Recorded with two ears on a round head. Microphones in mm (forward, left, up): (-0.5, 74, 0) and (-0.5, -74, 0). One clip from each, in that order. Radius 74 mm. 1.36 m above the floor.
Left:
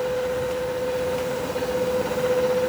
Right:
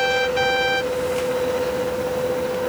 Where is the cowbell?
I don't hear a cowbell.